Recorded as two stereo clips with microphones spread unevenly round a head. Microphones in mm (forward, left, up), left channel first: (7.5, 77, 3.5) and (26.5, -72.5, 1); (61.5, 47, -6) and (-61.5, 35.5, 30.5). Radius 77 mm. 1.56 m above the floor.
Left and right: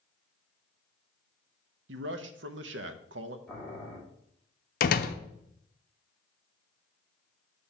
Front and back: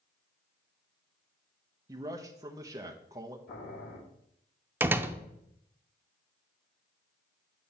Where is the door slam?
125° left, 0.5 m.